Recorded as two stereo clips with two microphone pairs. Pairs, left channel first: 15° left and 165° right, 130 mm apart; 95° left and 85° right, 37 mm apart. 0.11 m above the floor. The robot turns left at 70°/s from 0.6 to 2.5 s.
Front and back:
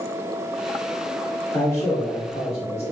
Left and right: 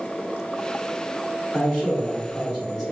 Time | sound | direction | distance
1.5 | a man speaking | 60° left | 1.5 m